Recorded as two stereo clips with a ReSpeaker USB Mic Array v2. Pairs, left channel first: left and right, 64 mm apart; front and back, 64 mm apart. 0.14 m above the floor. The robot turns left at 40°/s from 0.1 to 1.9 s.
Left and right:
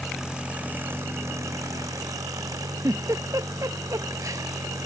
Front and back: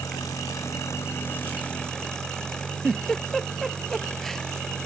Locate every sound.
0.0 s an engine running: 5° right; by 4.9 s 75° right
2.8 s a giggle: 85° right